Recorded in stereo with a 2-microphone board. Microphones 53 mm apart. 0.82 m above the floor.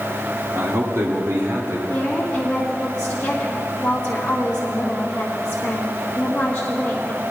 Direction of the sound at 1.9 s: 25° left (ahead or behind).